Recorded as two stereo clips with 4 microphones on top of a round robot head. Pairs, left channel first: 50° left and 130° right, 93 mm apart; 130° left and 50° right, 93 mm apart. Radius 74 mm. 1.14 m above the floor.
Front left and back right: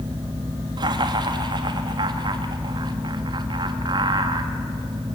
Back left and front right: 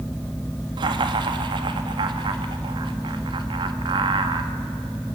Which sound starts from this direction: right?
Laughter, at 0.8 s.